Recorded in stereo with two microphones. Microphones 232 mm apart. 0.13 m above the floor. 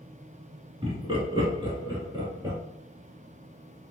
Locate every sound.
0.8 s laughter: 25° right (ahead or behind), 1.2 m; by 2.6 s 15° right (ahead or behind), 1.9 m